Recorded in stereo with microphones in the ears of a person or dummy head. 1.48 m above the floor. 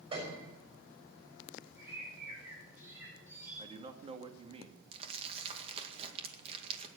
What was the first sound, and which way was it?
A piano, 20° right (ahead or behind).